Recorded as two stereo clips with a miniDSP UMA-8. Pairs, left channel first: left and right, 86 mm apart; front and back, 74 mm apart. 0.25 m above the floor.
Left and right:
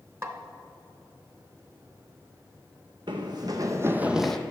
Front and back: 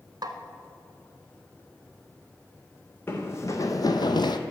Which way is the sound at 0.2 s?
150° right.